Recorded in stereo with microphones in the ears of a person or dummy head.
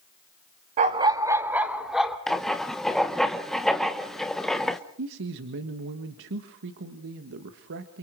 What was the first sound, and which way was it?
A dog barking, 30° right (ahead or behind).